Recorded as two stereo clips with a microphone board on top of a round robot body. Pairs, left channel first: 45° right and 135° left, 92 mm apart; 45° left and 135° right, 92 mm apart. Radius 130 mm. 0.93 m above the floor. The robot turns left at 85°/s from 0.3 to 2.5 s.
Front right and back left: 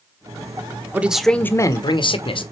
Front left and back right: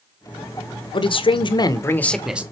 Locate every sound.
0.9 s a man speaking: 65° left, 1.1 m; by 2.4 s 60° right, 1.1 m